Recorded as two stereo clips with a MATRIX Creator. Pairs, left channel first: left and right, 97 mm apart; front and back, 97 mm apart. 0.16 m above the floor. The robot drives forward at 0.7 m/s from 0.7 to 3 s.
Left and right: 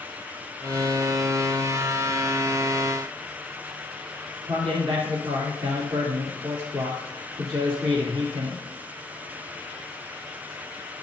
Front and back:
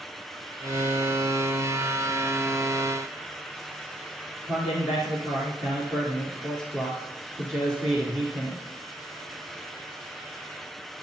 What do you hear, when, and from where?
4.5 s a man speaking: 120° right, 3 m